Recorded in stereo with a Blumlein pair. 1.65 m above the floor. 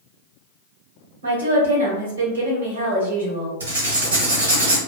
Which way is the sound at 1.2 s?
70° right.